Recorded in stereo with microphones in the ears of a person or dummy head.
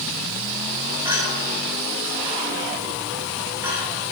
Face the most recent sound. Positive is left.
turn(degrees=-20)  # may be behind; listen again after turning